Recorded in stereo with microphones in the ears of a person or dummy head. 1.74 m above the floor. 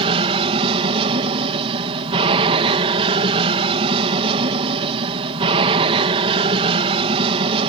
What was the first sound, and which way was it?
An aircraft, 30° right (ahead or behind).